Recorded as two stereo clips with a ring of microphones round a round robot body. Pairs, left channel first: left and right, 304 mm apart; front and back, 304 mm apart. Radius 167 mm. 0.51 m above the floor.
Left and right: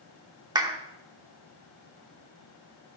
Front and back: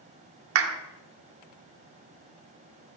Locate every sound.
0.6 s a clap: 165° right, 0.9 m